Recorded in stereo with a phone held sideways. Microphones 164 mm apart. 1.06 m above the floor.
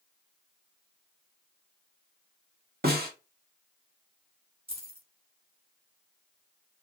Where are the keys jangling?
35° right (ahead or behind), 1.2 m.